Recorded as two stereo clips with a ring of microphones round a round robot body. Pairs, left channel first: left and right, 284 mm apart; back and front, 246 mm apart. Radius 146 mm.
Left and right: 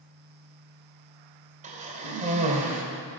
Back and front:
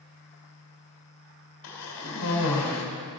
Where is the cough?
155° right, 2 m.